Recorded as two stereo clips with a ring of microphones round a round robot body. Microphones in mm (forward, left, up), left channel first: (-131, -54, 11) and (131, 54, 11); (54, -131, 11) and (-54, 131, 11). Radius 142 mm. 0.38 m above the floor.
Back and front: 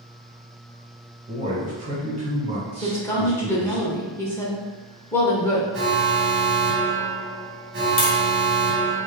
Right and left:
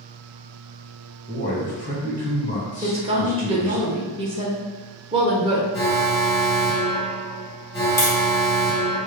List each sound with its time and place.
1.3 s a man speaking: 30° right, 1.6 m
2.8 s a woman speaking: 135° left, 0.8 m
5.7 s an alarm: straight ahead, 1.3 m
8.0 s tapping: 145° right, 1.0 m